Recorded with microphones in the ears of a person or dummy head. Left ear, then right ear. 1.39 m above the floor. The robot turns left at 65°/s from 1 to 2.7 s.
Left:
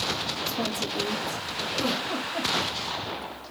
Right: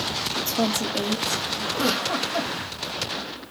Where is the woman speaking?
115° right, 1.1 m; by 1.6 s 155° right, 1.1 m.